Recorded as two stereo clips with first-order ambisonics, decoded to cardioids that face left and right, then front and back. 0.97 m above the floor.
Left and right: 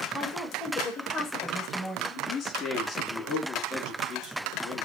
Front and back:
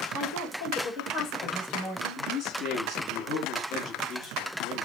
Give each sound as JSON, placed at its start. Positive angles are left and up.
{"t": 0.1, "sound": "a woman speaking", "azimuth_deg": 20, "distance_m": 1.6}
{"t": 2.2, "sound": "a man speaking", "azimuth_deg": 30, "distance_m": 3.0}